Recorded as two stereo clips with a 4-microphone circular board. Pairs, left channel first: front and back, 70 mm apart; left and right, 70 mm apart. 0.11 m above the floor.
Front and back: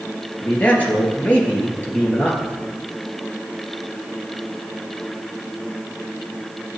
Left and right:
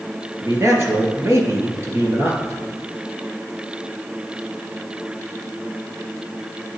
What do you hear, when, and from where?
0.4 s a man speaking: 60° right, 2.5 m